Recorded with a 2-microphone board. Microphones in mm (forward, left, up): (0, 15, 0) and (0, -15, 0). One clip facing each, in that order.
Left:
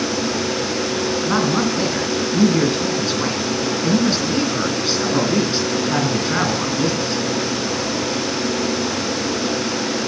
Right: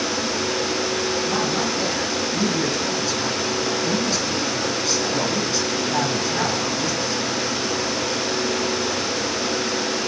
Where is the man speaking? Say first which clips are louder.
Left 4 dB; 35° left (ahead or behind), 3 m.